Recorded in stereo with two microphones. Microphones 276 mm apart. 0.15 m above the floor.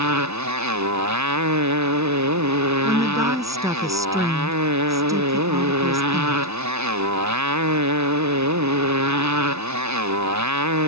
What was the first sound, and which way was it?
A motorcycle, 80° right.